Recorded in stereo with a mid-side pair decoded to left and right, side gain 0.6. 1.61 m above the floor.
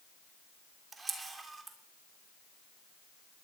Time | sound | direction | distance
0.9 | a camera shutter | 25° right | 3 m